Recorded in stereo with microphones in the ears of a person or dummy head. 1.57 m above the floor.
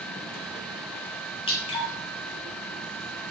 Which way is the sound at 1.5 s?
25° left (ahead or behind).